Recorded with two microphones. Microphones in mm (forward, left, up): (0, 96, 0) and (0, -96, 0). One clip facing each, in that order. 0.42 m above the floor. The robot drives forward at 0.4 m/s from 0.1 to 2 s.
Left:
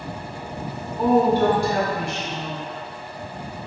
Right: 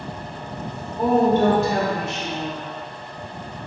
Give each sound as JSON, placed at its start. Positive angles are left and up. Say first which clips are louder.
{"t": 1.0, "sound": "a woman speaking", "louder": "even", "side_deg": -20, "distance_m": 1.4}